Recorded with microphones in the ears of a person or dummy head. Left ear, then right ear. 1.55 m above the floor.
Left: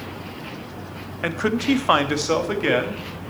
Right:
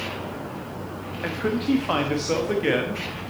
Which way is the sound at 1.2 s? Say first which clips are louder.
Left 4 dB; 80° left.